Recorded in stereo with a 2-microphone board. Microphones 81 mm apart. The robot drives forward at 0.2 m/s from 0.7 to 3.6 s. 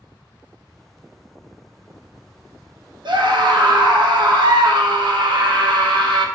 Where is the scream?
70° right (ahead or behind), 0.9 m; by 6.3 s 65° right (ahead or behind), 0.9 m.